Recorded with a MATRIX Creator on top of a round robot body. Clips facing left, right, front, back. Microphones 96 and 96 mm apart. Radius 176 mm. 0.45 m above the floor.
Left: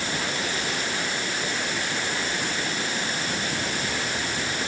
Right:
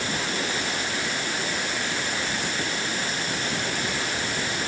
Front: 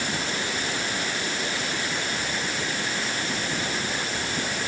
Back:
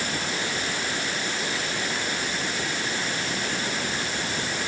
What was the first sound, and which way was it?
Only background noise.